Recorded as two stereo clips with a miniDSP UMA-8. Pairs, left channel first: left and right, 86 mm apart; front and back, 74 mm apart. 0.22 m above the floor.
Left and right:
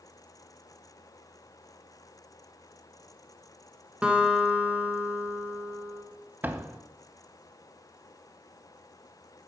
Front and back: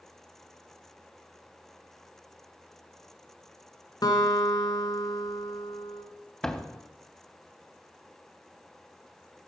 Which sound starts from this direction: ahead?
A guitar, at 4.0 s.